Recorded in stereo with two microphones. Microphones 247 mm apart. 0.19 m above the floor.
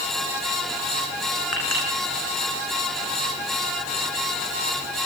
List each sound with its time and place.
1.5 s a clink: 80° left, 7.5 m